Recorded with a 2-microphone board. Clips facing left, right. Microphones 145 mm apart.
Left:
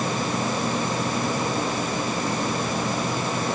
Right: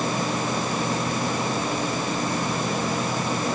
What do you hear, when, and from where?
Only background noise.